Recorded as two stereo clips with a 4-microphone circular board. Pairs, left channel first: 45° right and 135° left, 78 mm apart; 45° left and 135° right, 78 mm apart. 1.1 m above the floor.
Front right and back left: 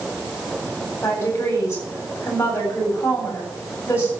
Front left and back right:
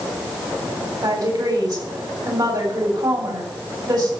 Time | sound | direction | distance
1.0 | a woman speaking | 105° right | 8.5 m